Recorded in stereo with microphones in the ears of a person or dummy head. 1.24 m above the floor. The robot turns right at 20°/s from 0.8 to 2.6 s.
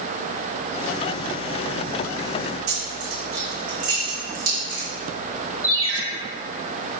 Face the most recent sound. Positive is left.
turn(degrees=-30)  # may be behind; listen again after turning